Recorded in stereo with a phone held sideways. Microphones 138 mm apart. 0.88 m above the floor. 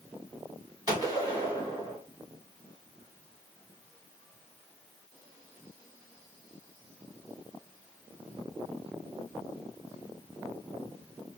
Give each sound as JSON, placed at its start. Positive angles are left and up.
{"t": 0.9, "sound": "a gunshot", "side_deg": -30, "distance_m": 1.5}